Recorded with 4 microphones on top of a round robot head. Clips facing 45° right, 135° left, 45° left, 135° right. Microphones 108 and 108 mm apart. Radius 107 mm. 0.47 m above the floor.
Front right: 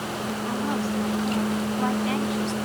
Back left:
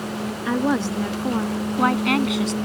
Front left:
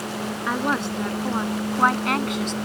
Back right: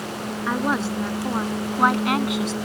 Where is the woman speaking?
135° left; by 2.5 s 140° left.